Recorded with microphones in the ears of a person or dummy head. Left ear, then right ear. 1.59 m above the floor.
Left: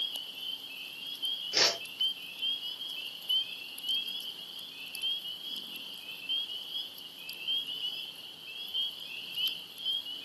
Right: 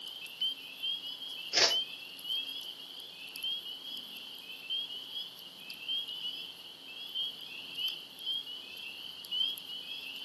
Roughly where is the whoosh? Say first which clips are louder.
Even; centre.